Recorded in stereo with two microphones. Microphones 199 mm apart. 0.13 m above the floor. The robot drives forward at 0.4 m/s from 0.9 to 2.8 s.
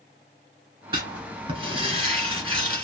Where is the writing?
25° right (ahead or behind), 1.5 m.